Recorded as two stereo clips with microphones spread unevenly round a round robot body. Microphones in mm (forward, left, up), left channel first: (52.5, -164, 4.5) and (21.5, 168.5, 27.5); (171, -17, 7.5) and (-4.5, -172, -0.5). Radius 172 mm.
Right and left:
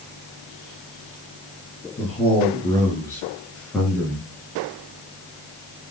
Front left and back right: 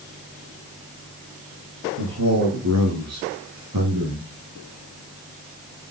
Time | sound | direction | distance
2.0 | a man speaking | 160° right | 7.5 m